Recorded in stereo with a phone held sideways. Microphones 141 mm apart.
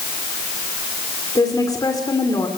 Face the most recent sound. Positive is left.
turn(degrees=25)  # may be behind; listen again after turning